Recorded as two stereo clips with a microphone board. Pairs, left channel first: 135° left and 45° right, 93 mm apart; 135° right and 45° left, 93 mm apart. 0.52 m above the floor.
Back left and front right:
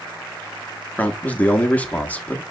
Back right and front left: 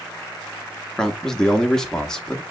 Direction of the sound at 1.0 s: 155° left.